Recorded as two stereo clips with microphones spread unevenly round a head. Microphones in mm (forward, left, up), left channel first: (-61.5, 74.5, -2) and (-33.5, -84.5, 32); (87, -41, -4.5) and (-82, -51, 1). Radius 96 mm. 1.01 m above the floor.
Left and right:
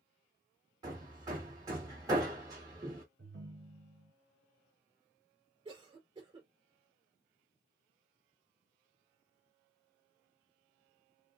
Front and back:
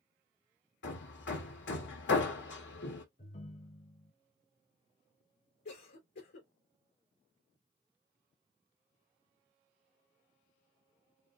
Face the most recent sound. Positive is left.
turn(degrees=-10)